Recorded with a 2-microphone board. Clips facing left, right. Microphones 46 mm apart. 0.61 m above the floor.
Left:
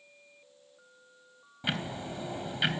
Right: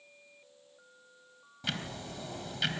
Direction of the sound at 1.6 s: 20° left (ahead or behind).